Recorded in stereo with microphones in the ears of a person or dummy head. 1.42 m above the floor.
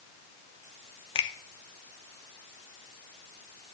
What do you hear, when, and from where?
1.1 s a finger snap: 30° left (ahead or behind), 0.6 m